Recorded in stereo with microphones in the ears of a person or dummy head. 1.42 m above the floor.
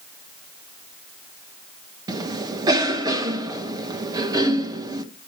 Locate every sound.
2.1 s a cough: 25° right (ahead or behind), 1.5 m